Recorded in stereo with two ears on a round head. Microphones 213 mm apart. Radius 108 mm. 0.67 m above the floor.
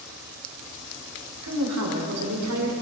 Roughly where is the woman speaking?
Right.